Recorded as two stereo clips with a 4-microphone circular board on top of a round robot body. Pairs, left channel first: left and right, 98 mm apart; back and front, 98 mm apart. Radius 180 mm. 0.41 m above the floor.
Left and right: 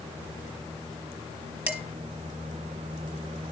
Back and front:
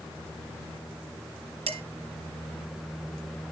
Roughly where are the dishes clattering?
Ahead.